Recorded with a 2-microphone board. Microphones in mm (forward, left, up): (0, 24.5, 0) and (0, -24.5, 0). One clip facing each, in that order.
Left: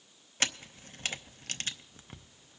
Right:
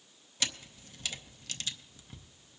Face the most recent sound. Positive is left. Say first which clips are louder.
# left 4 dB
turn(degrees=45)  # may be behind; listen again after turning